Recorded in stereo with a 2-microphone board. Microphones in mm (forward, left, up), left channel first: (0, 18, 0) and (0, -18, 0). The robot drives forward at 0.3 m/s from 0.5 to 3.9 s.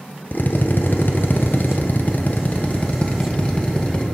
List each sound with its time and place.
0.3 s a drill: 60° left (ahead or behind), 0.6 m; by 4.0 s 30° left (ahead or behind), 1.0 m